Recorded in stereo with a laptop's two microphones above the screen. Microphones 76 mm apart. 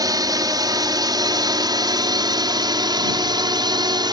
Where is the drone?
55° right (ahead or behind); by 4.1 s 70° right (ahead or behind).